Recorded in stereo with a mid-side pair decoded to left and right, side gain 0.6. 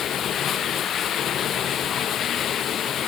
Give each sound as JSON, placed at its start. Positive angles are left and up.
{"t": 0.0, "sound": "running water", "azimuth_deg": 45}